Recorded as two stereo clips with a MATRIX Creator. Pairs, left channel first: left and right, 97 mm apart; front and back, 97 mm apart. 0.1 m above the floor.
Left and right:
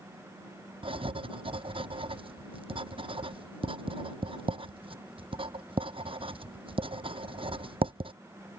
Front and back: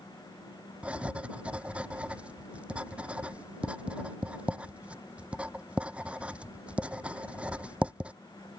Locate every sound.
0.8 s writing: 100° right